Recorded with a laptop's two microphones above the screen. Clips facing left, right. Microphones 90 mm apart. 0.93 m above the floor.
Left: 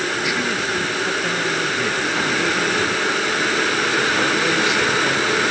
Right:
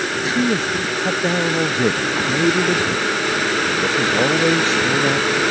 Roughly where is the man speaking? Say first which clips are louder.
Right 3 dB; right.